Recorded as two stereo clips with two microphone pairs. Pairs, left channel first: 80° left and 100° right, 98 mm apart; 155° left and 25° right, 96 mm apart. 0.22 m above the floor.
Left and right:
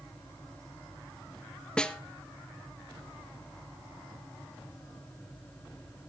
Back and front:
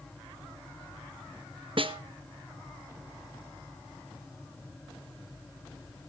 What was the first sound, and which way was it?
A snare drum, straight ahead.